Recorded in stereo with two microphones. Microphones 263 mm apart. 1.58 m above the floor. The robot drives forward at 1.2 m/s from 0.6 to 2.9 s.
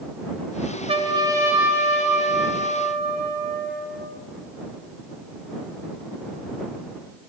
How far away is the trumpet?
About 0.6 m.